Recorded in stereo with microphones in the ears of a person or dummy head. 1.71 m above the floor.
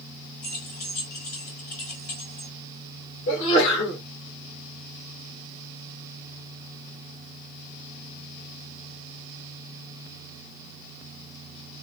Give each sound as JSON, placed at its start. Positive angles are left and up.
{"t": 0.4, "sound": "keys jangling", "side_deg": 30, "distance_m": 0.9}
{"t": 3.3, "sound": "a sneeze", "side_deg": 30, "distance_m": 1.7}